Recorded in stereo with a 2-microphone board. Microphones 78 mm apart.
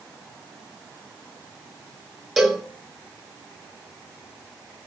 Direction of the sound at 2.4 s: 5° right (ahead or behind).